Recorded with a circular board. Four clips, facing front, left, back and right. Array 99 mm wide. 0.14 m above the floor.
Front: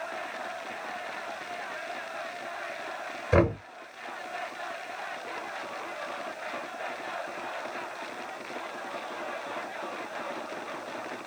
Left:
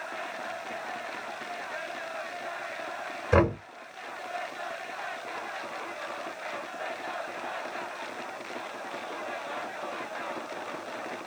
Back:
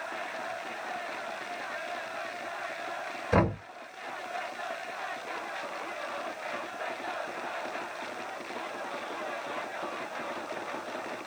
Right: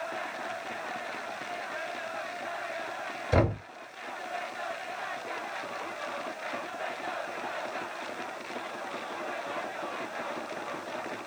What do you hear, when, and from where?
3.3 s knocking: 80° left, 1.6 m